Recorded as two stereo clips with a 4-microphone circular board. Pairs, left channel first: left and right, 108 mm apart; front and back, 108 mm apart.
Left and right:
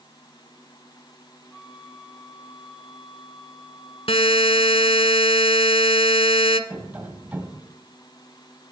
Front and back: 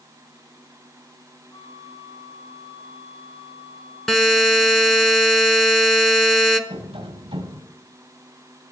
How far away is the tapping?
About 2 m.